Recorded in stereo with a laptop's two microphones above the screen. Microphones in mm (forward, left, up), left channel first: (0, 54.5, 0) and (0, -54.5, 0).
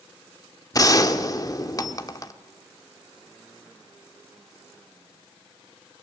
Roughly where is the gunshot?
Left.